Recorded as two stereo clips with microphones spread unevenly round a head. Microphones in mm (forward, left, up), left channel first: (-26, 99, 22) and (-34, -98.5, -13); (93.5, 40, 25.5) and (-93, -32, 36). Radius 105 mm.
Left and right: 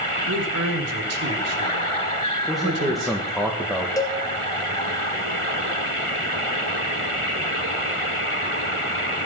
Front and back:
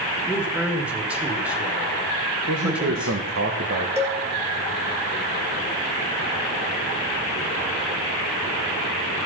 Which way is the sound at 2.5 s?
175° left.